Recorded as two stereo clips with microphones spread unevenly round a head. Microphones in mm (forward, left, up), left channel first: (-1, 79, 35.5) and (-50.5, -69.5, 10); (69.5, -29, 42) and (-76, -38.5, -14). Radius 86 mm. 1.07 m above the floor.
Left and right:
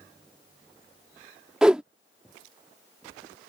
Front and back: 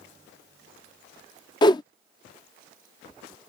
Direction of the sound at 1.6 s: 15° right.